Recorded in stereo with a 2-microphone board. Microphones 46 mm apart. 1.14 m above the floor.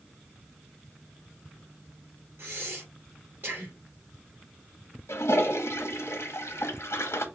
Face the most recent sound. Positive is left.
turn(degrees=80)